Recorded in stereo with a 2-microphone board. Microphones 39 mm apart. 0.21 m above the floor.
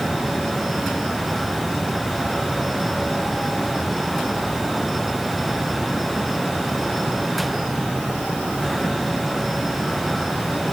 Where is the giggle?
No giggle in this recording.